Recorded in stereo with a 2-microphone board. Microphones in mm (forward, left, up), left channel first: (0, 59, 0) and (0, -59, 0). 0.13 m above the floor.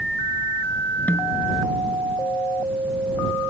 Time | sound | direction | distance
1.1 | a snare drum | 15° left (ahead or behind) | ?